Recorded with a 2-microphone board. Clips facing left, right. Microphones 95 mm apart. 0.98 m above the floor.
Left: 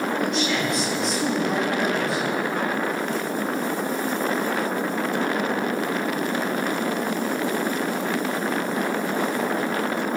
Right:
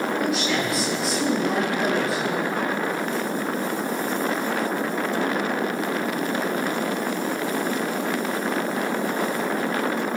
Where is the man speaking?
Centre (ahead or behind), 4 m.